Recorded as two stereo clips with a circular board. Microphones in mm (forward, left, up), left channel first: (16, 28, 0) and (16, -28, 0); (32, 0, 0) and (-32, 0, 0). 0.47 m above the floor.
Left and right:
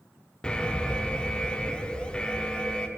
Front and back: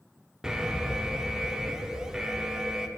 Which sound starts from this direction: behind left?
An alarm, at 0.4 s.